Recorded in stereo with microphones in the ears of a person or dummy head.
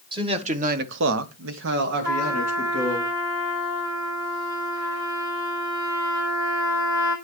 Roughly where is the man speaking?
Right.